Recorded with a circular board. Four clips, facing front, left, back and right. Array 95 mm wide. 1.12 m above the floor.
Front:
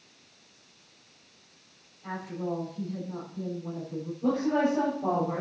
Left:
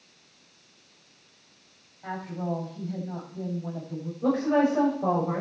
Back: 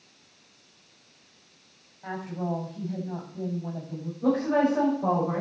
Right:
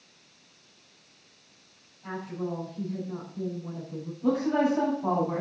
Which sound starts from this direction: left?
A woman speaking, at 4.2 s.